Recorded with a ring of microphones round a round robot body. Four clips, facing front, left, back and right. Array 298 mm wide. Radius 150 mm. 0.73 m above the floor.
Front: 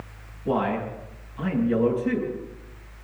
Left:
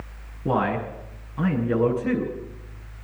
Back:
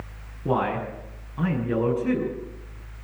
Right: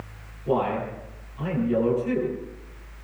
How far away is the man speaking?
About 7 m.